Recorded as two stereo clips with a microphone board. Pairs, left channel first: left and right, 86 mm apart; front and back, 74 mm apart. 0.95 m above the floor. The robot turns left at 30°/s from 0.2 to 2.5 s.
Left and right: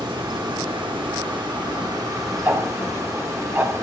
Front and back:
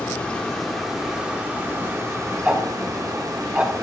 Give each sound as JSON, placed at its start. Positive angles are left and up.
{"t": 0.0, "sound": "running water", "azimuth_deg": -75, "distance_m": 1.0}
{"t": 2.5, "sound": "ticking", "azimuth_deg": -125, "distance_m": 0.7}